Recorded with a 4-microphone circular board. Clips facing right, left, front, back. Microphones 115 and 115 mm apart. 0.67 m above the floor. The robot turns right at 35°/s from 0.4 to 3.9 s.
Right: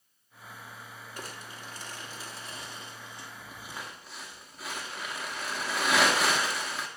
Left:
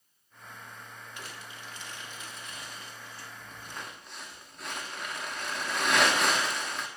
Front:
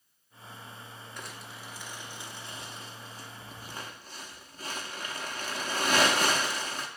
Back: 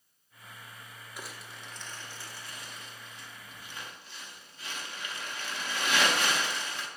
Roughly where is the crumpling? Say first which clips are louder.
Right 4 dB, even; right.